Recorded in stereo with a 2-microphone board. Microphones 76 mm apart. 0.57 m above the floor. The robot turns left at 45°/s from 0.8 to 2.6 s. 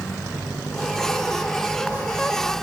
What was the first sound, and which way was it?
Only background noise.